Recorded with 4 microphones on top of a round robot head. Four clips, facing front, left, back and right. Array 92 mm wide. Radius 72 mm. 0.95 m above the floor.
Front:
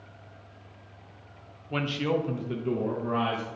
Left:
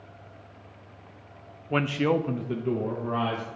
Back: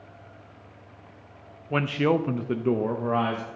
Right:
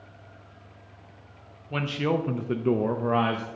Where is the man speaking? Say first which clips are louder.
Left 2 dB, back 5 dB; 135° left, 0.8 m; by 3.5 s 110° right, 1.3 m.